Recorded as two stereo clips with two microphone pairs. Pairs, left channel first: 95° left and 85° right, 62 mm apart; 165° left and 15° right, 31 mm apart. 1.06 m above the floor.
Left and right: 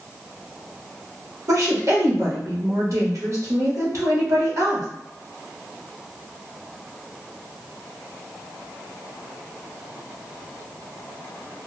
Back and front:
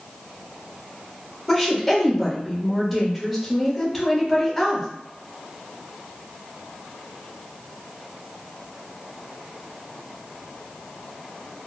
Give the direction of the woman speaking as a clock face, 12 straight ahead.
3 o'clock.